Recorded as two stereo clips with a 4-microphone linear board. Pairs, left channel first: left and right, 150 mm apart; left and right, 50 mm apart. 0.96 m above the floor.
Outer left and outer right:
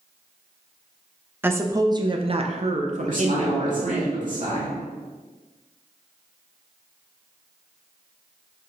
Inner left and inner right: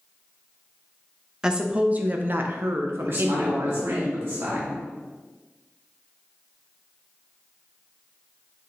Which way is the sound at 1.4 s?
15° right (ahead or behind).